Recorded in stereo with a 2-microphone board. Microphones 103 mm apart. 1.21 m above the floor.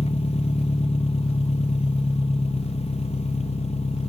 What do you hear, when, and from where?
0.0 s an engine running: 80° left, 1.2 m